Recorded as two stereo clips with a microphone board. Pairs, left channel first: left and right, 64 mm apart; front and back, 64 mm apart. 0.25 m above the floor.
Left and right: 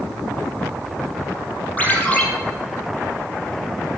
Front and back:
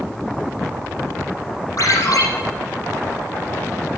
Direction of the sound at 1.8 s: 25° left.